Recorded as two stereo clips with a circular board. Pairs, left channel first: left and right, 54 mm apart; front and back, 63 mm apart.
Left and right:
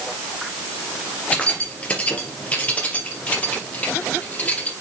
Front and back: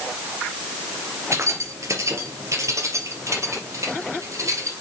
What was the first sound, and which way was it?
Keys jangling, 155° left.